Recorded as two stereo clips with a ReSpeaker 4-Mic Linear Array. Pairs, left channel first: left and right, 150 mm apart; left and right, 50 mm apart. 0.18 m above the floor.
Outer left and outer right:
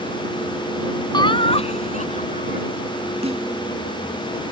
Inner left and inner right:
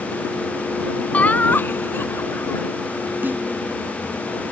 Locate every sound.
1.1 s laughter: 30° left (ahead or behind); by 2.6 s 60° left (ahead or behind)
3.2 s a snare drum: 45° right (ahead or behind)